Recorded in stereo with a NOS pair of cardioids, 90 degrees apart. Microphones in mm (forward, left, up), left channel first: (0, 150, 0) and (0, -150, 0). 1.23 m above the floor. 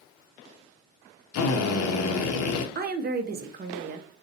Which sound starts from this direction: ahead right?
A woman speaking, at 2.8 s.